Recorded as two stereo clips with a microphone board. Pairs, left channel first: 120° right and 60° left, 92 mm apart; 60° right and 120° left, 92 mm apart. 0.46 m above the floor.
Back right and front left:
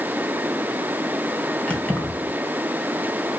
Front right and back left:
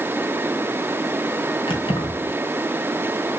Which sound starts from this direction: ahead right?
Keys jangling, at 1.7 s.